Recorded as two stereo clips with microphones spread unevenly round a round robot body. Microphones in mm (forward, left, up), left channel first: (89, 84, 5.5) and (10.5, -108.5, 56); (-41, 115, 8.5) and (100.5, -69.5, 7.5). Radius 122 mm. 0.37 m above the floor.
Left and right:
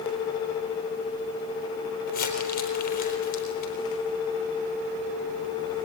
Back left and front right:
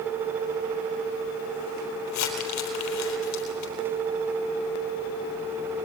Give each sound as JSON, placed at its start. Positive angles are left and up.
{"t": 2.1, "sound": "crumpling", "azimuth_deg": 120, "distance_m": 4.0}